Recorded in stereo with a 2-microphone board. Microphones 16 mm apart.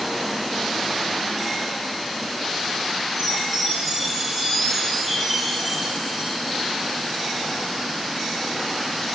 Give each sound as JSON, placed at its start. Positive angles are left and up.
{"t": 3.2, "sound": "a chime", "side_deg": -5, "distance_m": 9.5}